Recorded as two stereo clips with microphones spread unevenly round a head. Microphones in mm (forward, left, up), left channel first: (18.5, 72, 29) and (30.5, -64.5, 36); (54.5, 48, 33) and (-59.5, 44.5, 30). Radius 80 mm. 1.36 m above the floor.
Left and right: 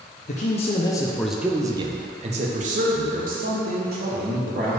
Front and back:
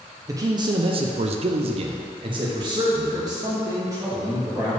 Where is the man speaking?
125° left, 0.7 m; by 4.8 s 110° right, 2 m.